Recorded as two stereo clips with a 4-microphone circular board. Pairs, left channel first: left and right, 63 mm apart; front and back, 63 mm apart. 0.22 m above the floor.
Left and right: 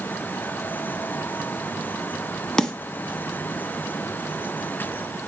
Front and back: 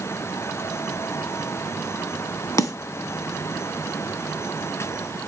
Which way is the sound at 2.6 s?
10° left.